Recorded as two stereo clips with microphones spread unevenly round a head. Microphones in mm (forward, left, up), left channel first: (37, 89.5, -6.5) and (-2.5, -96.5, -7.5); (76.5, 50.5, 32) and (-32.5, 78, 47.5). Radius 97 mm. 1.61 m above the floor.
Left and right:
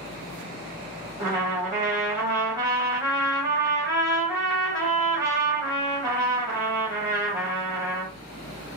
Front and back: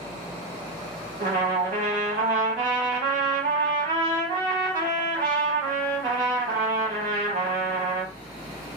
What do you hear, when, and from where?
1.2 s a trumpet: 175° right, 2.5 m